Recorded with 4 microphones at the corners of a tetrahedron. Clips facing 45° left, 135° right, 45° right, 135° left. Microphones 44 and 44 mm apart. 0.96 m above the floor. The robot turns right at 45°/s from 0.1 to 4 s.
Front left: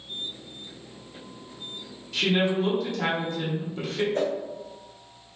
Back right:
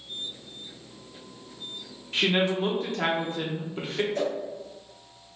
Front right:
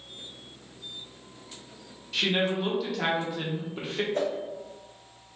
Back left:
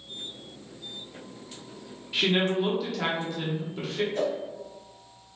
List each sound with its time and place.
2.1 s a woman speaking: 165° right, 0.7 m; by 4.0 s 80° right, 0.7 m
4.1 s a whoosh: 10° right, 1.0 m